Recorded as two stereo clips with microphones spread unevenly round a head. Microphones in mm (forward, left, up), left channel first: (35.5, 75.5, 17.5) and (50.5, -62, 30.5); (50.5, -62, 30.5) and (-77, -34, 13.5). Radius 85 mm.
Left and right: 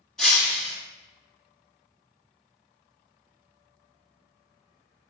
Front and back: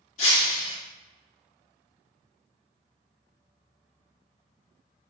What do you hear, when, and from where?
0.2 s breaking glass: 5° left, 1.4 m